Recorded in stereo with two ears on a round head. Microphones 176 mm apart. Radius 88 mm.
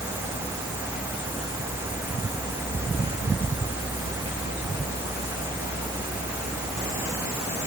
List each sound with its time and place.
Only background noise.